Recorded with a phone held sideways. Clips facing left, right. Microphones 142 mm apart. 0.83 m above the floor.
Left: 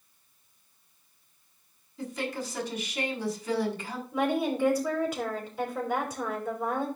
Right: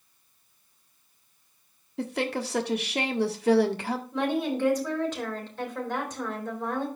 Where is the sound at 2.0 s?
70° right (ahead or behind), 1.4 m.